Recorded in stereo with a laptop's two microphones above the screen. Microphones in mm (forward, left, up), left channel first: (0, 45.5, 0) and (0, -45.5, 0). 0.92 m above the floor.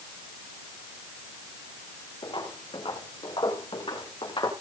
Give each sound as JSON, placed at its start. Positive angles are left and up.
{"t": 2.2, "sound": "footsteps", "side_deg": 75, "distance_m": 7.0}